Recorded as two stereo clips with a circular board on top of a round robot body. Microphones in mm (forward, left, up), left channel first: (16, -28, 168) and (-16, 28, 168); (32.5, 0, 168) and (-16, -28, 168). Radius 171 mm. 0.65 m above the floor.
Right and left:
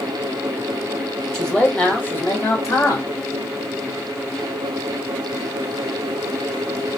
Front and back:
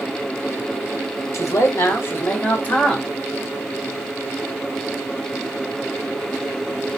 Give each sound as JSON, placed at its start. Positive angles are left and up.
{"t": 1.3, "sound": "a man speaking", "azimuth_deg": 20, "distance_m": 1.4}